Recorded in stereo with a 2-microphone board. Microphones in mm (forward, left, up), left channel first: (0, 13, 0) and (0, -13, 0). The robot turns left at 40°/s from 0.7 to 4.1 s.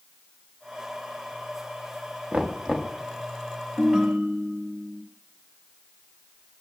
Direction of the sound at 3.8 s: 25° right (ahead or behind).